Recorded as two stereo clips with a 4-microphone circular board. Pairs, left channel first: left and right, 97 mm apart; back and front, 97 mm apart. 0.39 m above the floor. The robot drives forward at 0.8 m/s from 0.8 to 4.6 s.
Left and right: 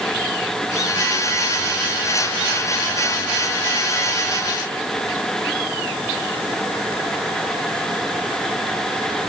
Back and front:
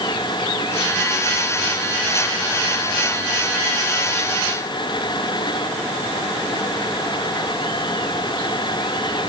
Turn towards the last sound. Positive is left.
No sound to turn to.